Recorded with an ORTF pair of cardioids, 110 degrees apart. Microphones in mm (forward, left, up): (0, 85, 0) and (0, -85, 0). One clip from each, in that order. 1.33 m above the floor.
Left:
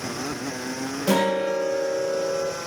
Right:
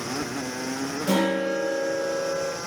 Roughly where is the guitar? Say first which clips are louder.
Left 2 dB; ahead left.